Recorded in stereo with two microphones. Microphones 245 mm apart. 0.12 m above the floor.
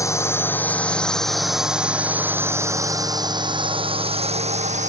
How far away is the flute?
No flute in this recording.